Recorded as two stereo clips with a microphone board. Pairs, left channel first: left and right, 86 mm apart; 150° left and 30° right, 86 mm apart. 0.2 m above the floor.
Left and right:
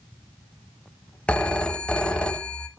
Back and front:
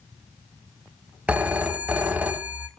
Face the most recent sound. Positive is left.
turn(degrees=25)